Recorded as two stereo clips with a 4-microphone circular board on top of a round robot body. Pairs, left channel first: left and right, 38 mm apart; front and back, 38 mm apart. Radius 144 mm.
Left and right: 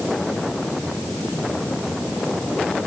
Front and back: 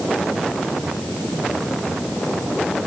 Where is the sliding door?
I don't hear a sliding door.